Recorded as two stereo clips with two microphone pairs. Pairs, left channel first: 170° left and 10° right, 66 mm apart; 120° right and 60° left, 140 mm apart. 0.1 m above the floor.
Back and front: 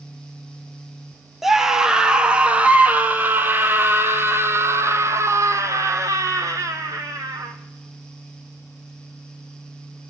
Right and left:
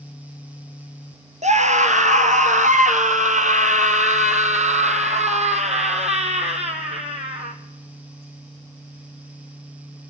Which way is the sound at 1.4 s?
75° left.